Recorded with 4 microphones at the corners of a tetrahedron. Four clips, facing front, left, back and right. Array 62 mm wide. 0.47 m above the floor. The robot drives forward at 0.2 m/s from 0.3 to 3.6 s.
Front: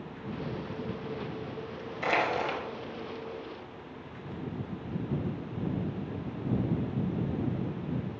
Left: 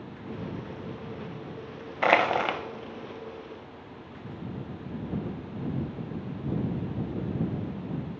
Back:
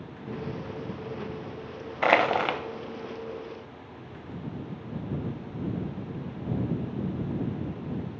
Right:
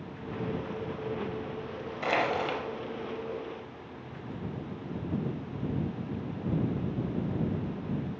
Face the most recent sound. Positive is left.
turn(degrees=155)